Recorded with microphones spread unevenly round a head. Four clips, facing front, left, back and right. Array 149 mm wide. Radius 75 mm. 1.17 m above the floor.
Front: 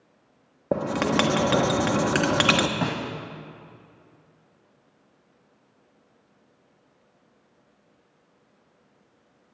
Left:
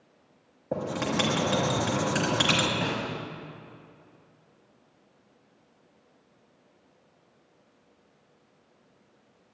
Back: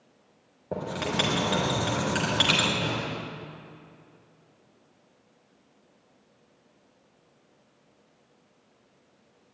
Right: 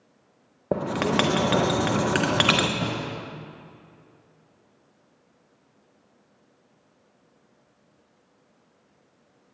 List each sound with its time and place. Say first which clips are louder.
0.7 s writing: right 5 dB, front 7 dB; 45° right, 1.0 m
2.8 s a snare drum: right 1 dB, front 3 dB; 20° right, 2 m